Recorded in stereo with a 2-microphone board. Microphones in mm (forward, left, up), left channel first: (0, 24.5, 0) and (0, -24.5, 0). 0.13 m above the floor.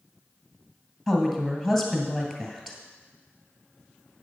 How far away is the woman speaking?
About 2 m.